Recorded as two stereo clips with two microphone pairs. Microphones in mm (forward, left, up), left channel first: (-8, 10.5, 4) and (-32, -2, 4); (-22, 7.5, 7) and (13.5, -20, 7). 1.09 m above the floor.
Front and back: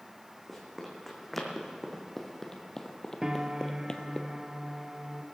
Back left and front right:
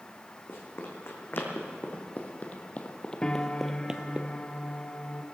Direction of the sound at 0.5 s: 110° left.